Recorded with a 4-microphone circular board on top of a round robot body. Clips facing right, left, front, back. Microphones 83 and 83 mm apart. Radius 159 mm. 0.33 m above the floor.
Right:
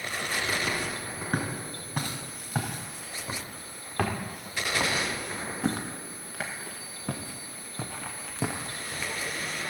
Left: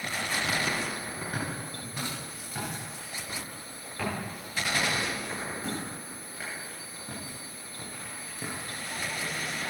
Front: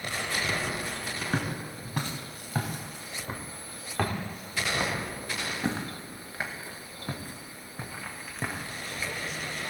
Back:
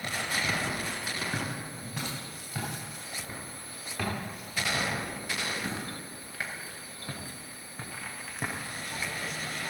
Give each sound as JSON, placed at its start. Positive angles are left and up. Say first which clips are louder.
{"t": 1.3, "sound": "footsteps", "louder": "right 7 dB, front 3 dB", "azimuth_deg": -45, "distance_m": 4.5}